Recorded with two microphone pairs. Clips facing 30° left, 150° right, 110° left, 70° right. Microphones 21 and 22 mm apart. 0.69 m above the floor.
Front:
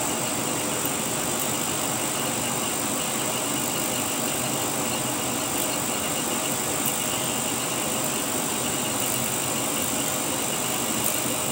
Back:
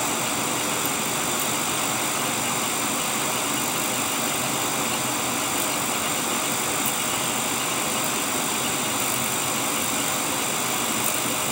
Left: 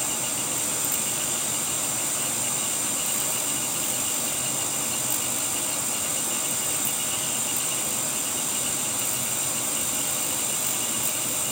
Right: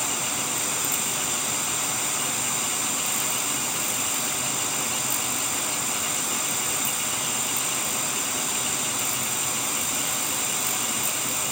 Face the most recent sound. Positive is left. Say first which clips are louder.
# back 2 dB, right 2 dB
turn(degrees=-140)